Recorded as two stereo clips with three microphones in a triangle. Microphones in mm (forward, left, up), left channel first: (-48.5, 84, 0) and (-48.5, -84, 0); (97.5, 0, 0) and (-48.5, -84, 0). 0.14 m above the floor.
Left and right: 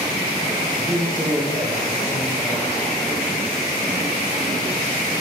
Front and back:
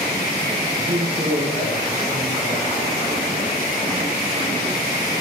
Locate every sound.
0.8 s a man speaking: 175° right, 4 m